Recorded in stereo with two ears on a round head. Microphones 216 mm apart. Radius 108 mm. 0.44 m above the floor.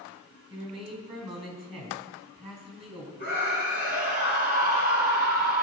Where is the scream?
40° right (ahead or behind), 4 m.